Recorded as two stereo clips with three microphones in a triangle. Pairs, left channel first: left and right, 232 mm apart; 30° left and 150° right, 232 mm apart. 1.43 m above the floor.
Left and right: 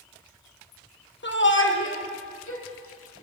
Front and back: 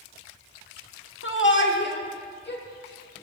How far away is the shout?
About 1.3 m.